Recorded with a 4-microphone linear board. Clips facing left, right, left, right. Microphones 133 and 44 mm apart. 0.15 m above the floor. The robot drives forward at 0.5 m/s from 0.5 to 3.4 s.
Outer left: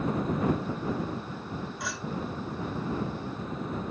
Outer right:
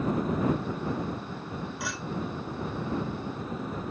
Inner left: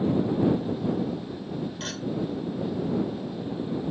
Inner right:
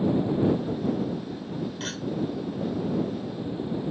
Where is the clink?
Centre (ahead or behind), 1.9 m.